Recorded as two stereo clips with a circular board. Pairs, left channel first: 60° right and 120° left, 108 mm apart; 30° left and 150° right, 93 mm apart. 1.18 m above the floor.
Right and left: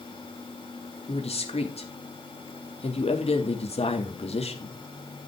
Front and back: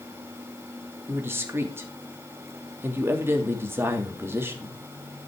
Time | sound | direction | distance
1.1 | a man speaking | 85° right | 3 m